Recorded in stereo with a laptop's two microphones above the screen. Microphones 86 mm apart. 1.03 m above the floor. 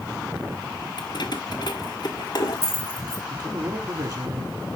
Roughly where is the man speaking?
Right.